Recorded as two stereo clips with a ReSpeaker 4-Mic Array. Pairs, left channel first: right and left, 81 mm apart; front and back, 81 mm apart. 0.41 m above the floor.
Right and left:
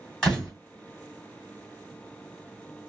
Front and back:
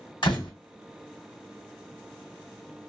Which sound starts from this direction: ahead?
A door slam, at 0.2 s.